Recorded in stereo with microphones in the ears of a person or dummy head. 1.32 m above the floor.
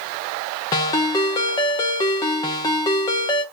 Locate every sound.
0.7 s a ringtone: 20° left (ahead or behind), 0.6 m